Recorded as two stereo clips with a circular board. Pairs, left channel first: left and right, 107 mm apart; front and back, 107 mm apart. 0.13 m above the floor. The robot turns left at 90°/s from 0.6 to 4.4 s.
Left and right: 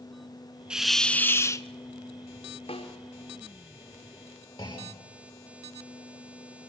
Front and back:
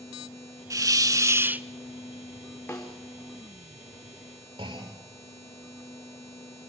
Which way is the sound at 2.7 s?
75° left.